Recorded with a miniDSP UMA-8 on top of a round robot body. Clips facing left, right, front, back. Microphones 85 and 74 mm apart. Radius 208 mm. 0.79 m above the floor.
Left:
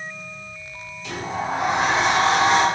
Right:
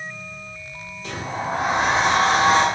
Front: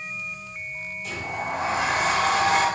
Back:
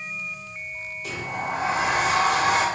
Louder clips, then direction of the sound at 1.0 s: Left 1 dB, back 1 dB; 140° right.